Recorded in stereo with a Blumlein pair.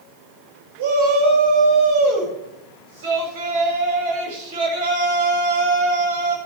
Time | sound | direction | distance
0.8 | a shout | 55° right | 7 m